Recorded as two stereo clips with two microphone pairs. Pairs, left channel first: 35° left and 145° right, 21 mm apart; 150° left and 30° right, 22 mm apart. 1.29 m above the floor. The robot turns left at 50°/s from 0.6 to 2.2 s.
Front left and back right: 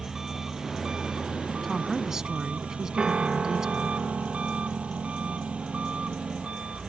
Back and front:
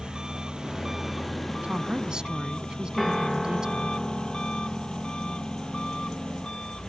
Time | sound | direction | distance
0.0 | an engine running | 80° right | ?
1.6 | a woman speaking | 55° right | ?
3.0 | a piano | 115° right | ?